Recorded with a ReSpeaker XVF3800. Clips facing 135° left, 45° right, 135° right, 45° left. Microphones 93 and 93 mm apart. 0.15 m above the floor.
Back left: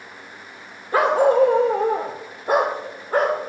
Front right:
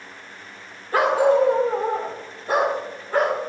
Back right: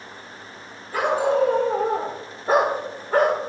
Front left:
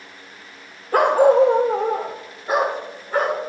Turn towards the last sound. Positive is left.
turn(degrees=-175)